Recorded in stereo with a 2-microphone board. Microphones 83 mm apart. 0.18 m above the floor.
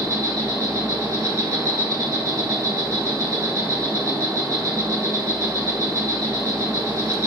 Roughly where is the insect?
Right.